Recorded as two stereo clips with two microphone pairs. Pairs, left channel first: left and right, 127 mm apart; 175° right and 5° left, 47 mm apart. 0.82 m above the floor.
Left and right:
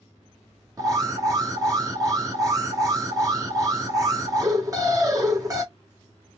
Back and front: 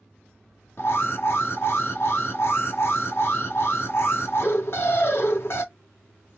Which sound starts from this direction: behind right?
An alarm, at 0.8 s.